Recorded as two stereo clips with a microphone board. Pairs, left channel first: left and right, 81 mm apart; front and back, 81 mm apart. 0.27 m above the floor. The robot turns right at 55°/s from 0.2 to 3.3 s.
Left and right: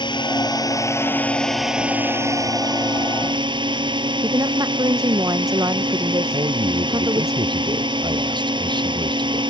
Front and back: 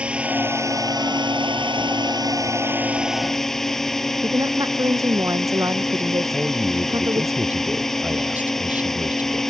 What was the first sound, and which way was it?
A drone, 105° left.